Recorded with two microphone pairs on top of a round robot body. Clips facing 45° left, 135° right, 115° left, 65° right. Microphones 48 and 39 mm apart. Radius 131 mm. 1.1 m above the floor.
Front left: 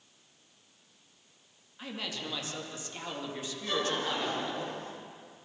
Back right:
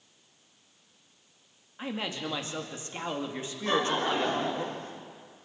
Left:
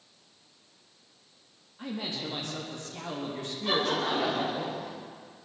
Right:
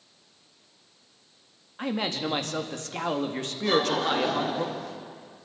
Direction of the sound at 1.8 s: 75° right.